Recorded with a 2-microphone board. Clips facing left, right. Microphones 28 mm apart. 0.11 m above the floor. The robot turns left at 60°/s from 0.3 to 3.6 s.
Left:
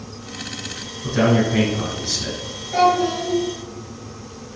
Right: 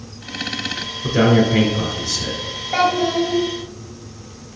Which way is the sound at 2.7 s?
90° right.